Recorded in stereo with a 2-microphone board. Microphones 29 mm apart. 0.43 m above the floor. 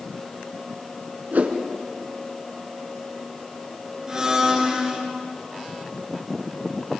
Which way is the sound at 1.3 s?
75° right (ahead or behind).